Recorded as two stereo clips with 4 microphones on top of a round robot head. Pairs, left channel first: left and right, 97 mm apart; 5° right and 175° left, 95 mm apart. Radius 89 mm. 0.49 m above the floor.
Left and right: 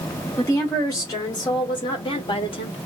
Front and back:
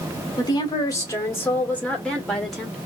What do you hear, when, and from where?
0.4 s a woman speaking: 30° left, 1.5 m; by 2.8 s 90° left, 1.8 m